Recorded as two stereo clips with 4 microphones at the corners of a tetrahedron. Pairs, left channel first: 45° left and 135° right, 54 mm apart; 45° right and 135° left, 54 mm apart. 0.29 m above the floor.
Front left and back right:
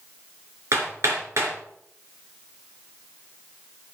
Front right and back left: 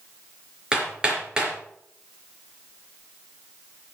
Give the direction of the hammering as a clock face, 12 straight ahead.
5 o'clock.